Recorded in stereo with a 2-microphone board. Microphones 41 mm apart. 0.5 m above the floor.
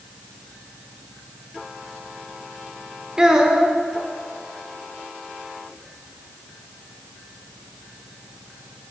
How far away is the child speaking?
About 0.8 m.